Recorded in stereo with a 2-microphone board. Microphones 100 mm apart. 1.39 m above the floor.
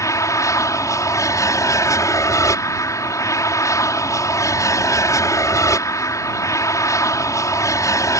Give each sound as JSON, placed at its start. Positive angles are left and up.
{"t": 0.0, "sound": "an aircraft", "side_deg": 30}